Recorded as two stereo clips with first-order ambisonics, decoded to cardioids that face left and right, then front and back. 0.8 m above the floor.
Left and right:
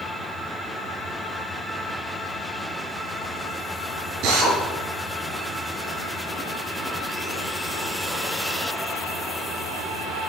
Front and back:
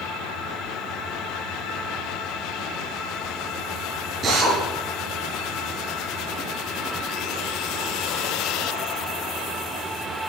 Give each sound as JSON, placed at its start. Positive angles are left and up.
{"t": 4.2, "sound": "a drill", "azimuth_deg": -115, "distance_m": 6.0}